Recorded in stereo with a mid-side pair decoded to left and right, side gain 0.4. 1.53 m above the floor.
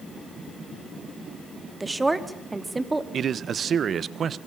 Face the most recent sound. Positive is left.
turn(degrees=-60)